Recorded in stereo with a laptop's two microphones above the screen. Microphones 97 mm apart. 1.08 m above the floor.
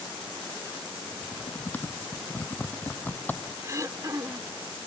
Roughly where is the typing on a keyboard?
Centre.